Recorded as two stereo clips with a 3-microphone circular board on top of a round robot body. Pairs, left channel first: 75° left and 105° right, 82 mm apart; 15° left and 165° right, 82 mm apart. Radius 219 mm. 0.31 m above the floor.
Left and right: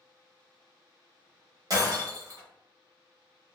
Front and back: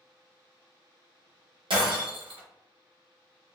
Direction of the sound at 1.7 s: 155° right.